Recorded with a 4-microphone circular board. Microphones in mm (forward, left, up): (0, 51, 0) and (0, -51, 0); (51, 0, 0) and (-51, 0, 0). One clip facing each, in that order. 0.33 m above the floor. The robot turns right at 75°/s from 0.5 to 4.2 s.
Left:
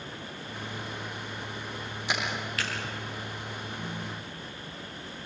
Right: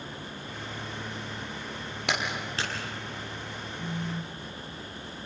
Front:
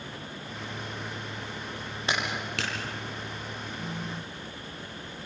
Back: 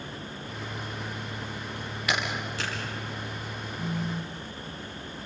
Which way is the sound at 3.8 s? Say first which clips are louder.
Right 3 dB, back 7 dB; 170° right.